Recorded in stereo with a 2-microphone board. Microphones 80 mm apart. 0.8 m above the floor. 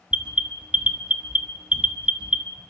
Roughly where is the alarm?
Centre.